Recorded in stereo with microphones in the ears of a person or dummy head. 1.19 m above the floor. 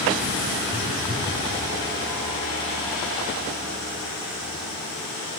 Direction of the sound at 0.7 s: 15° right (ahead or behind).